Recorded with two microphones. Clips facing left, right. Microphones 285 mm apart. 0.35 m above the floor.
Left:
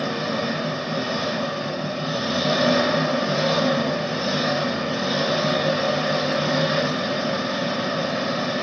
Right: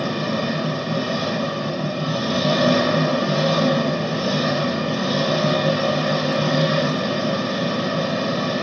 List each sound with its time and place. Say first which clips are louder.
0.0 s an engine running: right 2 dB; 40° right (ahead or behind), 1.7 m